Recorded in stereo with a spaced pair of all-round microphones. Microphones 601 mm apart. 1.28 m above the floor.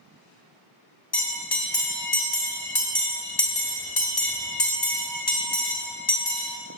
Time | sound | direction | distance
1.1 | a bell | 40° left (ahead or behind) | 0.8 m